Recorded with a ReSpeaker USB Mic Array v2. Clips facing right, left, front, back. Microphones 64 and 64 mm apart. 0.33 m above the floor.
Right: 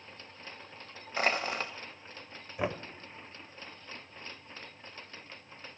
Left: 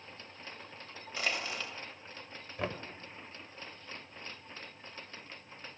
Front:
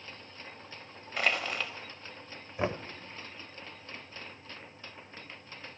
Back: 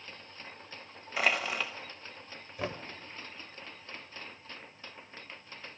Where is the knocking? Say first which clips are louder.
Right 4 dB, front 5 dB; 30° right, 0.6 m.